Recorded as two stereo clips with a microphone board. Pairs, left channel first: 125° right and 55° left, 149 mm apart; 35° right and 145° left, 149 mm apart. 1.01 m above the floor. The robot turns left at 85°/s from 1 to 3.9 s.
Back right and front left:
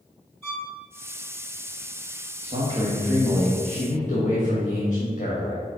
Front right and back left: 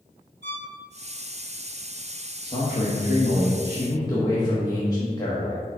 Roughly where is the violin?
Ahead.